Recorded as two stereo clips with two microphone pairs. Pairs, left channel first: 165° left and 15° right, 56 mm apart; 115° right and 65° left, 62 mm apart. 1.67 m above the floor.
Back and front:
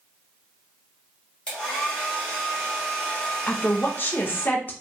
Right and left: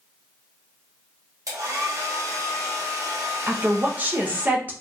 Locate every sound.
1.5 s a hair dryer: 95° left, 1.4 m
3.5 s a woman speaking: 125° left, 0.8 m